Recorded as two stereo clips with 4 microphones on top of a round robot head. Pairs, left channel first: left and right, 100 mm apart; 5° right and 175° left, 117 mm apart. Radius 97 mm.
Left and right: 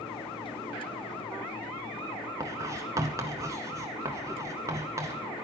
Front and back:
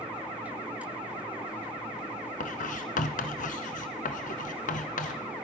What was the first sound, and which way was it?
Writing, 20° right.